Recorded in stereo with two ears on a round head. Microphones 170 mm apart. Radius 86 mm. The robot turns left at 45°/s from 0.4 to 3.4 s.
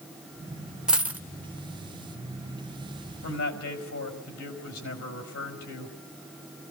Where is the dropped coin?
5° right (ahead or behind), 0.8 m; by 1.2 s 10° right (ahead or behind), 0.8 m.